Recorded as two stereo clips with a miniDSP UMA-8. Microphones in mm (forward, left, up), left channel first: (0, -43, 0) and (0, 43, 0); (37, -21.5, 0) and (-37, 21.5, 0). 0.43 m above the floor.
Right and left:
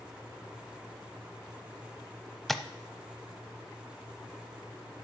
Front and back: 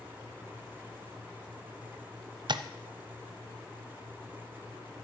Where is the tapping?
175° right, 0.6 m.